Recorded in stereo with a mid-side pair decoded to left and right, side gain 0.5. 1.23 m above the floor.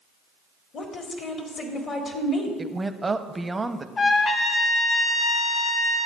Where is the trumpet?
40° left, 1.0 m.